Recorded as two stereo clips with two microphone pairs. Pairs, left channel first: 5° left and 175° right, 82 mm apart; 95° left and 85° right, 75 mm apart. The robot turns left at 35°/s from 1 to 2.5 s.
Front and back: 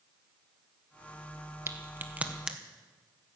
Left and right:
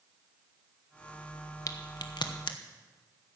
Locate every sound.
1.7 s a crack: 130° left, 1.2 m; by 2.6 s 100° left, 1.2 m